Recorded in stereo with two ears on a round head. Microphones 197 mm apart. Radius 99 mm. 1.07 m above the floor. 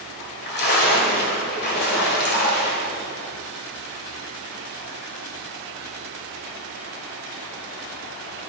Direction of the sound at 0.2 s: 50° left (ahead or behind).